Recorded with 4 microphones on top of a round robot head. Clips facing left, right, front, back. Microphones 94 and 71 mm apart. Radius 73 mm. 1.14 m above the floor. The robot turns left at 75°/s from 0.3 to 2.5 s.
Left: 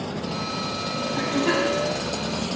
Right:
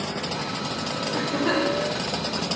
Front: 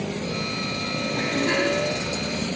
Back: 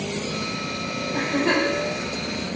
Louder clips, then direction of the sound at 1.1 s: Left 1 dB, back 2 dB; 130° right.